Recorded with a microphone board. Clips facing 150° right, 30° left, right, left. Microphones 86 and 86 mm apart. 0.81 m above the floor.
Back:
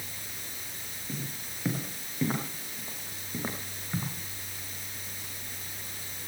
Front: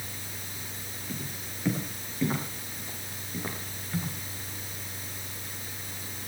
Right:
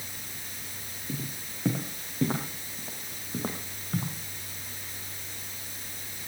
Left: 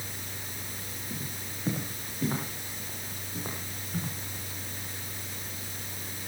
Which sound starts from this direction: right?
Footsteps, at 1.1 s.